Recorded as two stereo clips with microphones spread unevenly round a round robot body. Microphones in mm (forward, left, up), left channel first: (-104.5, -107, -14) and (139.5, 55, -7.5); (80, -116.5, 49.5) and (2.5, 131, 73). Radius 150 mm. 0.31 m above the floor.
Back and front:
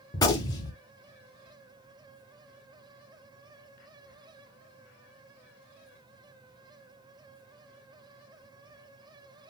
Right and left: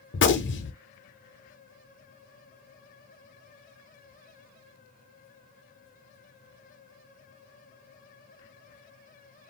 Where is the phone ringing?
I don't hear a phone ringing.